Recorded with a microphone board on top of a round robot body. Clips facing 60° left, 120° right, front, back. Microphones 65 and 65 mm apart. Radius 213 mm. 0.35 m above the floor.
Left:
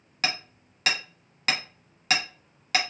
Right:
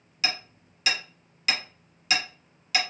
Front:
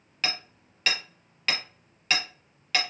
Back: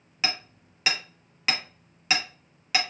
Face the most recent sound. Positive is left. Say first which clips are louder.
# left 1 dB, back 1 dB
turn(degrees=100)